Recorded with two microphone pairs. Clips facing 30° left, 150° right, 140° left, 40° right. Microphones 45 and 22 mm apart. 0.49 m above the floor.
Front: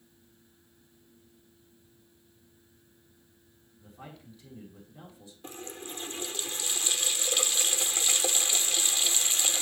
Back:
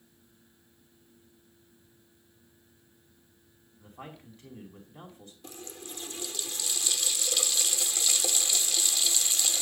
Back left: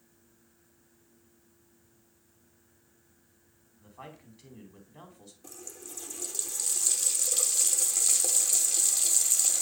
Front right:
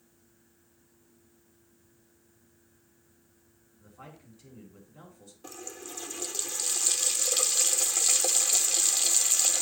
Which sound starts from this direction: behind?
A man speaking, at 3.8 s.